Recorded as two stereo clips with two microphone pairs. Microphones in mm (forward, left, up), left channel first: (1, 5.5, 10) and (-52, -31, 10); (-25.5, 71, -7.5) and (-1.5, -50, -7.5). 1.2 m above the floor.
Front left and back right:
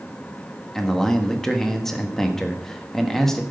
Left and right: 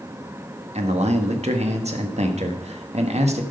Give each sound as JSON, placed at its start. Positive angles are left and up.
{"t": 0.8, "sound": "a man speaking", "azimuth_deg": -50, "distance_m": 1.4}